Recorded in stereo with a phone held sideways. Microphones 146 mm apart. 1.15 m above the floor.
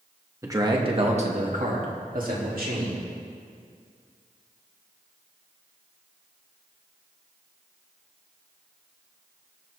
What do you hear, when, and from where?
0.4 s a man speaking: 20° right (ahead or behind), 1.7 m; by 3.0 s 85° right, 3.5 m